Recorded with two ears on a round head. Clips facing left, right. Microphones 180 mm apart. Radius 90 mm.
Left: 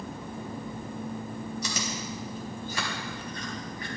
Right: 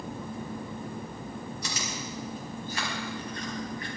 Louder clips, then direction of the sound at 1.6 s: Left 2 dB; 85° left.